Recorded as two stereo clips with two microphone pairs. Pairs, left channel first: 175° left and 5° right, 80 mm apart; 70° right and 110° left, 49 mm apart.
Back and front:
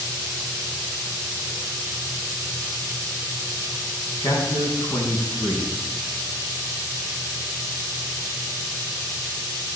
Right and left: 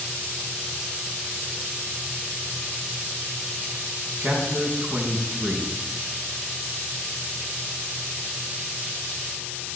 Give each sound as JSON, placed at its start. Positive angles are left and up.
{"t": 4.2, "sound": "a man speaking", "azimuth_deg": 140, "distance_m": 4.0}